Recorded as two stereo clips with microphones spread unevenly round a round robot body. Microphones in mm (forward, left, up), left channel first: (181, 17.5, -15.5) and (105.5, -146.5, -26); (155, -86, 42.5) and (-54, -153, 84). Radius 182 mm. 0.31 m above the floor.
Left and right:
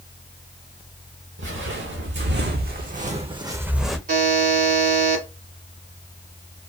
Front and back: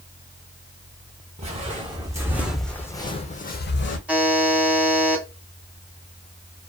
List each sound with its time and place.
1.4 s footsteps: 100° right, 1.3 m; by 4.0 s 20° right, 0.8 m
4.1 s a buzzer: 75° right, 1.3 m